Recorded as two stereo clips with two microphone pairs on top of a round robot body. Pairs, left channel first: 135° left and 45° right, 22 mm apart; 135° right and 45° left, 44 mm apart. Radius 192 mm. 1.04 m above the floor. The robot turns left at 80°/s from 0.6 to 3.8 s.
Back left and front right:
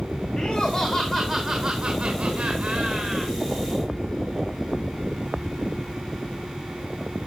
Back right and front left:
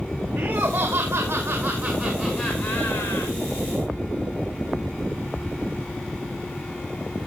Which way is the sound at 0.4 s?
70° left.